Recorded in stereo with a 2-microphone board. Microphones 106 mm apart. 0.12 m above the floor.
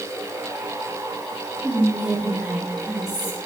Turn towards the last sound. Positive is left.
turn(degrees=-5)  # may be behind; listen again after turning